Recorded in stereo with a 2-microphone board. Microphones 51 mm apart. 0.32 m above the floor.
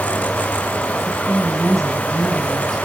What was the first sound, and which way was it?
A woman speaking, centre (ahead or behind).